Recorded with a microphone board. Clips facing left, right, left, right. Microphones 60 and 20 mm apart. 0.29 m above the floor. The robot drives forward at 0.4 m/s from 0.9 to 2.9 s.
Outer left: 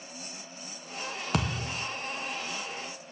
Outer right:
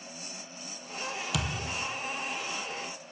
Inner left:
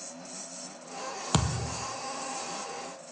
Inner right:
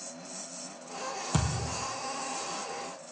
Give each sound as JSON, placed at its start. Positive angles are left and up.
{"t": 1.3, "sound": "a thud", "side_deg": 45, "distance_m": 0.6}